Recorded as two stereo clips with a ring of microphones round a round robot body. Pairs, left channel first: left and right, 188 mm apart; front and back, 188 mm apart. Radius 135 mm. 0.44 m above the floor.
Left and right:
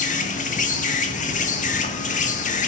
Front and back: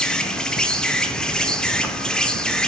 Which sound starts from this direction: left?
An insect, at 0.0 s.